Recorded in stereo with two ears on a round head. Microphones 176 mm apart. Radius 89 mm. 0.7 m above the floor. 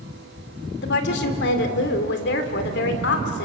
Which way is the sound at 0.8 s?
60° left (ahead or behind).